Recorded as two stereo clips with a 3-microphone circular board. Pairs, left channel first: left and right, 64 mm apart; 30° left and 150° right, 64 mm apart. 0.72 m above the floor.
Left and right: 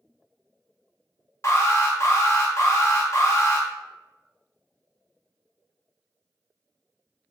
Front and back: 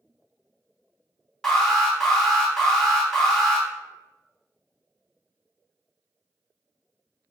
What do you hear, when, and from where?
1.4 s an alarm: 110° left, 0.9 m